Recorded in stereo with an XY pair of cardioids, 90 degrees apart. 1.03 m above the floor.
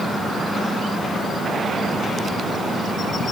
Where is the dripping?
No dripping in this recording.